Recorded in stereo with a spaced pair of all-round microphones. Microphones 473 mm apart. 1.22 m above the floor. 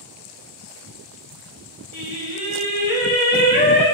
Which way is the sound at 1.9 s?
80° right.